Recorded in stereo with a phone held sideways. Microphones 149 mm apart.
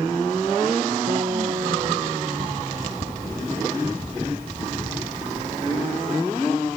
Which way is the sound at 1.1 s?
35° right (ahead or behind).